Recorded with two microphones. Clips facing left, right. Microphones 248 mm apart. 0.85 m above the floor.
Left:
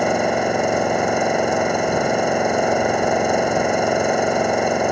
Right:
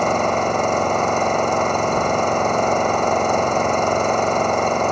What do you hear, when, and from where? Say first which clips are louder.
0.0 s an engine running: left 1 dB; 10° left (ahead or behind)